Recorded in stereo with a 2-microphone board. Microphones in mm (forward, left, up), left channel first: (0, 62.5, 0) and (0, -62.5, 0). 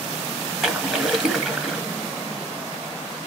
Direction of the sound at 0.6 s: 5° right (ahead or behind).